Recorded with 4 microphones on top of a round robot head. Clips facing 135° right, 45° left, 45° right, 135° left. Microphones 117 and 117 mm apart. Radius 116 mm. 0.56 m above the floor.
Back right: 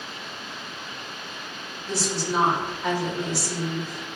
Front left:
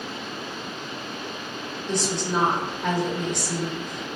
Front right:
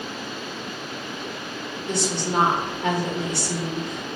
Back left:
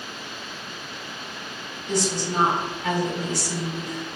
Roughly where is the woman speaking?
Ahead right.